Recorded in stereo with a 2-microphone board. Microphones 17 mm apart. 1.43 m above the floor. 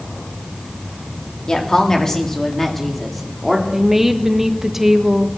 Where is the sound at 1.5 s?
50° left (ahead or behind), 2.5 m; by 3.6 s 10° right (ahead or behind), 3 m.